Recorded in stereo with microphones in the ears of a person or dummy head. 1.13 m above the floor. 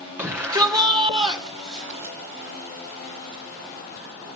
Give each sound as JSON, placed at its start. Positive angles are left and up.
{"t": 0.2, "sound": "a shout", "side_deg": -10, "distance_m": 3.5}